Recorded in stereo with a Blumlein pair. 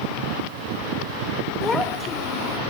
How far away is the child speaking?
About 1.0 m.